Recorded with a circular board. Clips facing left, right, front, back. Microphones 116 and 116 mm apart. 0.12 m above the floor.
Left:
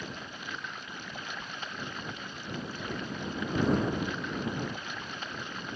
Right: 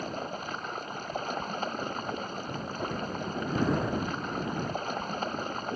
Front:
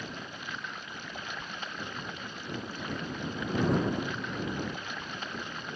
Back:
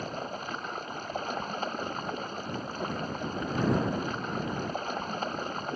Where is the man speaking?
I don't hear a man speaking.